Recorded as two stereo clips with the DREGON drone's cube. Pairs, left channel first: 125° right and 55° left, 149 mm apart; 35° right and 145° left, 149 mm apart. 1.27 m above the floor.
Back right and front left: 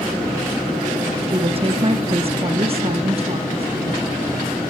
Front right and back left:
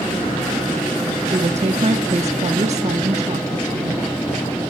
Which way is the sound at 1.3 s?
105° left.